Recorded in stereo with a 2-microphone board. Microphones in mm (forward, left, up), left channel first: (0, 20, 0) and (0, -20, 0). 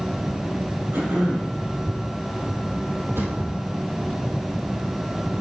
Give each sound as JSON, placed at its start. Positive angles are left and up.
{"t": 0.9, "sound": "throat clearing", "side_deg": -65, "distance_m": 3.5}
{"t": 3.2, "sound": "a drawer", "side_deg": -70, "distance_m": 3.5}